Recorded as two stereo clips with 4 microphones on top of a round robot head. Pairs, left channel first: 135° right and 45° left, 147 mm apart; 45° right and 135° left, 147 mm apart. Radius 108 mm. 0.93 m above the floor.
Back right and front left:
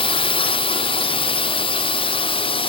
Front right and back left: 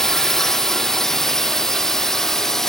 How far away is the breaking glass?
I don't hear breaking glass.